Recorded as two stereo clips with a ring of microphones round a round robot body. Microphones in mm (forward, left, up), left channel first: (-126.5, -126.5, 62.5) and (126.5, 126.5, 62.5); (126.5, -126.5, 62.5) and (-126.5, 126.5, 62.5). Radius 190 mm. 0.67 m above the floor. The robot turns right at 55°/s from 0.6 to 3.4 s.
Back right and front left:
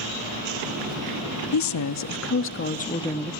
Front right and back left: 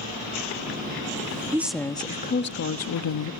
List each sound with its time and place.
1.5 s a woman speaking: 145° right, 1.2 m; by 3.3 s 45° right, 1.2 m